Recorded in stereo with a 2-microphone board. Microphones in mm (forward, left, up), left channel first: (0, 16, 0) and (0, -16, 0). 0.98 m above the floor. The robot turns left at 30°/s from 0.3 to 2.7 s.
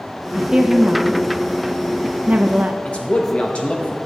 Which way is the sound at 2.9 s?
40° left (ahead or behind).